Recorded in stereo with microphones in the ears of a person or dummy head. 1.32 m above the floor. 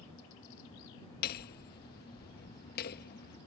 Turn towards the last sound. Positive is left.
turn(degrees=55)  # may be behind; listen again after turning